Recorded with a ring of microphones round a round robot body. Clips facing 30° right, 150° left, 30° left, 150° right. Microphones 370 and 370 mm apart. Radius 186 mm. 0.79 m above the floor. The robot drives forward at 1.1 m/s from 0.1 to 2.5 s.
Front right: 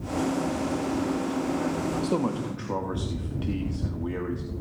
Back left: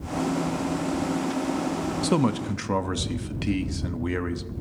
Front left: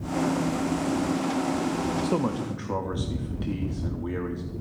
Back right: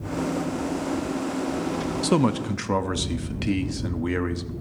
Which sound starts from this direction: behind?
A man speaking, at 2.0 s.